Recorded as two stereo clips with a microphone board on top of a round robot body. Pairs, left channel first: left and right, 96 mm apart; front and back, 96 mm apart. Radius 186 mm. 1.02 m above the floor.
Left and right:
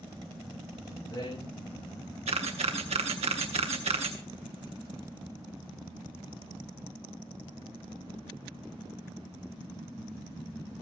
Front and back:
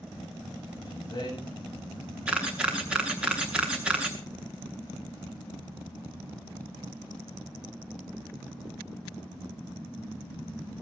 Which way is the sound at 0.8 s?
45° left.